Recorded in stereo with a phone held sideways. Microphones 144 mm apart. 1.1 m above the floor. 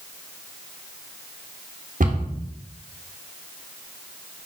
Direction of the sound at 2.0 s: 65° right (ahead or behind).